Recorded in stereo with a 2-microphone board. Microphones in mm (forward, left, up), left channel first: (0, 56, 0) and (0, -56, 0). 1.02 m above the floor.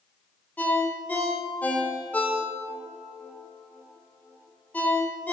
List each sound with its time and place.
0.6 s a ringtone: 15° left (ahead or behind), 2 m